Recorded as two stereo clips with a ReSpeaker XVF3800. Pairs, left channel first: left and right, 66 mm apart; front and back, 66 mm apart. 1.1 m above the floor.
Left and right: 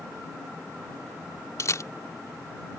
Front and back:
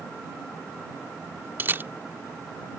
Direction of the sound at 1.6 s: 125° left.